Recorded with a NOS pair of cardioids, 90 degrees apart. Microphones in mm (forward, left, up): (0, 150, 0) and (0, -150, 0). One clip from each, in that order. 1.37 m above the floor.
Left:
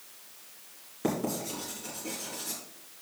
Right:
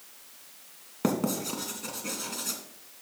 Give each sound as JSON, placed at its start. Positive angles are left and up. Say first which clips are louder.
{"t": 1.0, "sound": "writing", "louder": "right 2 dB", "azimuth_deg": -55, "distance_m": 2.5}